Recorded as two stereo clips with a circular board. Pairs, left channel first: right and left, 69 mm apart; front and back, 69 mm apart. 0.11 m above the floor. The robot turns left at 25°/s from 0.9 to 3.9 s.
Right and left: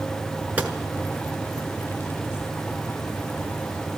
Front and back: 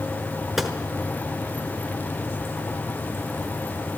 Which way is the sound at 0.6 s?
100° left.